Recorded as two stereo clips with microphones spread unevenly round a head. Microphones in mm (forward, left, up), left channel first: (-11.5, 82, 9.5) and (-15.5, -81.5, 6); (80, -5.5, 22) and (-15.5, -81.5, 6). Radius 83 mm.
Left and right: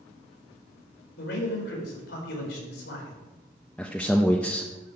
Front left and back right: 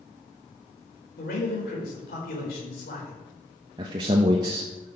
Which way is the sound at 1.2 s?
60° left.